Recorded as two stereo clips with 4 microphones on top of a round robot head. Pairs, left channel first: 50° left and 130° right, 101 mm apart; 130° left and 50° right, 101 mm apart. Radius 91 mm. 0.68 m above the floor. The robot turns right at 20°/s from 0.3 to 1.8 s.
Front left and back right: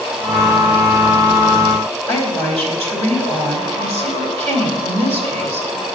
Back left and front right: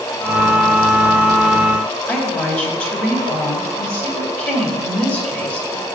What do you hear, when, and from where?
2.1 s a woman speaking: 150° right, 3 m